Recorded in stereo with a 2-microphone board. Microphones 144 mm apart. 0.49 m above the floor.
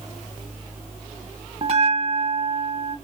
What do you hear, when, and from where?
1.6 s a bell: 45° right (ahead or behind), 0.8 m